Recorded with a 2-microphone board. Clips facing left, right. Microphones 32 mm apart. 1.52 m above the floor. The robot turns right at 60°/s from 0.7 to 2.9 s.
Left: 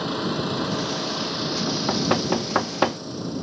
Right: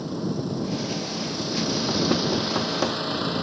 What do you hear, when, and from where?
0.0 s an engine running: 105° left; by 3.4 s 120° right
1.7 s knocking: 25° left (ahead or behind); by 3.0 s 35° left (ahead or behind)